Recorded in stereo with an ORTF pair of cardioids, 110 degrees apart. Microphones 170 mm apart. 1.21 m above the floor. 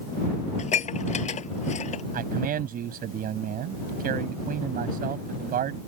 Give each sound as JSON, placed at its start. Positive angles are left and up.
{"t": 0.6, "sound": "dishes clattering", "azimuth_deg": 45}
{"t": 2.1, "sound": "a man speaking", "azimuth_deg": -60}